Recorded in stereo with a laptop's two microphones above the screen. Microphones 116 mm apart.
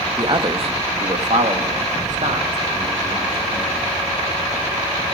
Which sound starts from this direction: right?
A man speaking, at 0.2 s.